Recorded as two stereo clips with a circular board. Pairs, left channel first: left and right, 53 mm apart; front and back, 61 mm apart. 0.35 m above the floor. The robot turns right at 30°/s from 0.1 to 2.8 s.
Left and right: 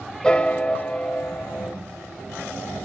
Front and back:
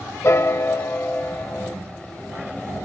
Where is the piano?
20° left, 0.7 m; by 1.8 s 70° left, 0.7 m.